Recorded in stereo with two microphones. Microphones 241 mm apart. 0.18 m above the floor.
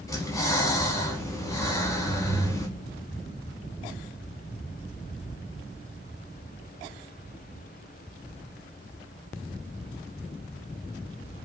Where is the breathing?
15° left (ahead or behind), 0.7 m.